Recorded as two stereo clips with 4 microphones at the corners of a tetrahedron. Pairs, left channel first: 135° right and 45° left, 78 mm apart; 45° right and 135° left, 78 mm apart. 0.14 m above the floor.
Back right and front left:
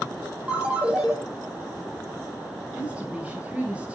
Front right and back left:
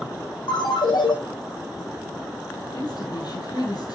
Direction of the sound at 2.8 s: 25° right.